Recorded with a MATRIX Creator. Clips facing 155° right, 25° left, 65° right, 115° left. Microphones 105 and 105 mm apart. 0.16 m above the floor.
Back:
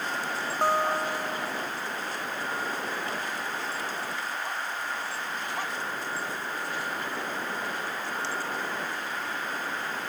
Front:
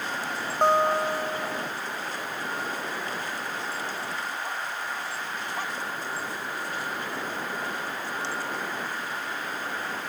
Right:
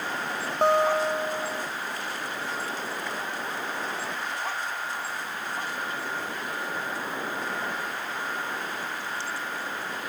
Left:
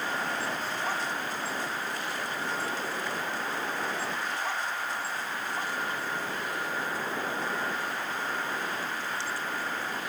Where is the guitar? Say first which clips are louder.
Front 4 dB, right 11 dB; 45° right.